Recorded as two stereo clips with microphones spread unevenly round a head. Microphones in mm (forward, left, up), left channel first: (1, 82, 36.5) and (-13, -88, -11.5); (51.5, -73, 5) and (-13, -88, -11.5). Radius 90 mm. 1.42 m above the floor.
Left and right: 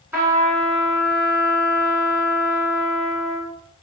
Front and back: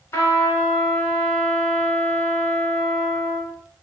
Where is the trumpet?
5° right, 2.5 m.